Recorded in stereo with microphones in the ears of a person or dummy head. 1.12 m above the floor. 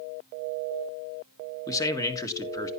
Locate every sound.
1.7 s a man speaking: 15° left (ahead or behind), 1.7 m